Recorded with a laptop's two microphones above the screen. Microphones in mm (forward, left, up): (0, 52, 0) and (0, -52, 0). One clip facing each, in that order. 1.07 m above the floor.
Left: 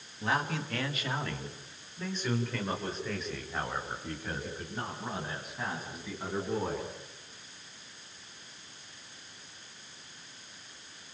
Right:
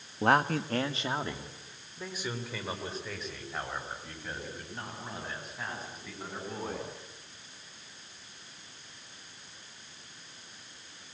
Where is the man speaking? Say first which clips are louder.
Right 6 dB; 55° right (ahead or behind), 1.3 m; by 6.9 s 5° left (ahead or behind), 9 m.